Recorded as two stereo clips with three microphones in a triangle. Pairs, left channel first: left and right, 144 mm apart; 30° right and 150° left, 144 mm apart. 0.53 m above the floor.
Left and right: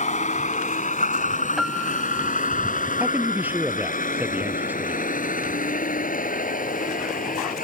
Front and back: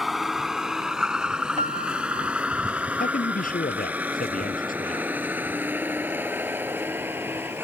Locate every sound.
0.0 s a vehicle: 60° left; by 7.6 s 75° left
1.6 s a piano: 175° right
3.0 s a man speaking: 10° right